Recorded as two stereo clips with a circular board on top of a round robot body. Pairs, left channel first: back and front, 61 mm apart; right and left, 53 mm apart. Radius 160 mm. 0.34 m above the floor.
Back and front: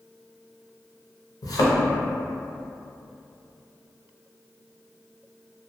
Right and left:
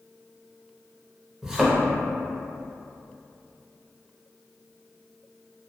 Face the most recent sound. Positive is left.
turn(degrees=170)